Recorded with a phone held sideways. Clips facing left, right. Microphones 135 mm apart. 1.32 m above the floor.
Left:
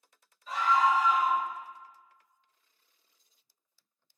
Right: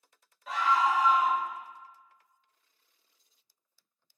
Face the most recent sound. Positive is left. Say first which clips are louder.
# left 1 dB
turn(degrees=-85)